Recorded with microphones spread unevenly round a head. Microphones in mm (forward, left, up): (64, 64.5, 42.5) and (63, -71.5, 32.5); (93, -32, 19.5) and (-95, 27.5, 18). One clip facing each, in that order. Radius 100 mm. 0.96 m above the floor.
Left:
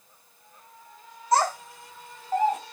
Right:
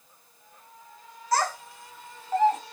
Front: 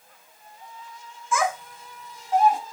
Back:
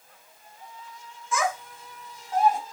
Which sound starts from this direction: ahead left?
A child speaking, at 1.3 s.